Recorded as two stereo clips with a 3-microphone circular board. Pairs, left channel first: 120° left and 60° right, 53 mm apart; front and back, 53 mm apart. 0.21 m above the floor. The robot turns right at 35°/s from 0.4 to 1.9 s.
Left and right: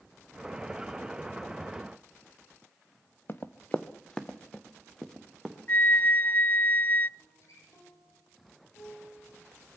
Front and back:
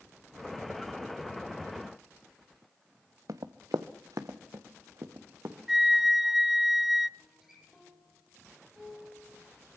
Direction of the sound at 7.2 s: 95° left.